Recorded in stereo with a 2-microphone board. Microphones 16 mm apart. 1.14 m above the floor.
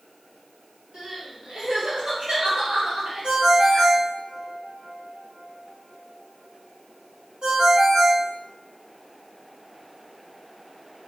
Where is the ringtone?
70° right (ahead or behind), 1.2 m.